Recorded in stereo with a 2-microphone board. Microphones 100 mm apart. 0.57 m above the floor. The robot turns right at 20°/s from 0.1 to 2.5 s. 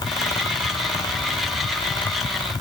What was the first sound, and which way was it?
Only background noise.